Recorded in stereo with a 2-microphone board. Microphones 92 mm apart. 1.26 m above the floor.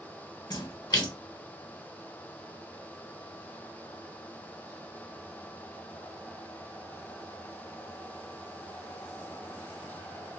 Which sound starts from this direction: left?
A splash, at 0.5 s.